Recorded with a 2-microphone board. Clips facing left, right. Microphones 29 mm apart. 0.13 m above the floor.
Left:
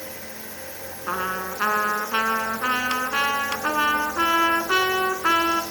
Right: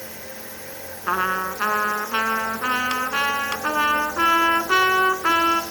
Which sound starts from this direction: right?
A trumpet, at 1.1 s.